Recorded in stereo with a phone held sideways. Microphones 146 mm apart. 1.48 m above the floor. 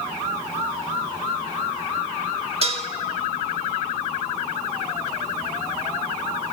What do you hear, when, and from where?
2.6 s dishes clattering: 45° right (ahead or behind), 1.8 m